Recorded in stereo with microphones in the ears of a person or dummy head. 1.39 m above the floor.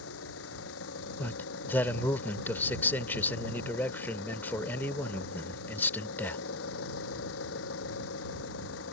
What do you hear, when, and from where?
0.0 s an engine running: 90° left
1.2 s a man speaking: 10° left (ahead or behind)